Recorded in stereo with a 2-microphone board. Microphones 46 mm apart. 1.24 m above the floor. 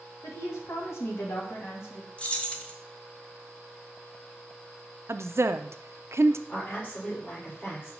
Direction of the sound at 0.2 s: 80° left.